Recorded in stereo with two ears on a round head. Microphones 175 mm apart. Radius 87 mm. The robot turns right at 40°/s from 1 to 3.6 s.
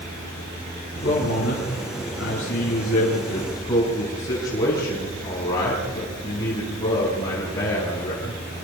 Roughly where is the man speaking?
Ahead left.